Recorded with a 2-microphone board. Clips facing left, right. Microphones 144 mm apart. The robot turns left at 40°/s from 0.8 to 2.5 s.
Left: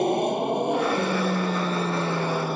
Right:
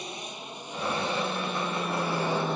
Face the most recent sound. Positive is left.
turn(degrees=5)  # may be behind; listen again after turning